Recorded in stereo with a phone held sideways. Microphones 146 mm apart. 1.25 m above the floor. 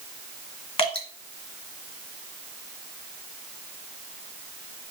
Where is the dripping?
40° left (ahead or behind), 2.5 m.